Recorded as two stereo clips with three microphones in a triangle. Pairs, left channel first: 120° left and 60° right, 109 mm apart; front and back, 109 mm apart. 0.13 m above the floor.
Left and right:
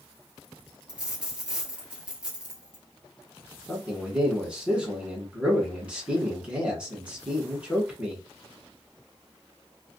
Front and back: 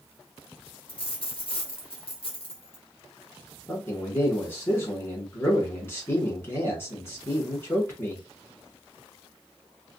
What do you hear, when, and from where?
0.9 s a dropped coin: 20° left, 1.1 m
3.7 s a man speaking: straight ahead, 1.2 m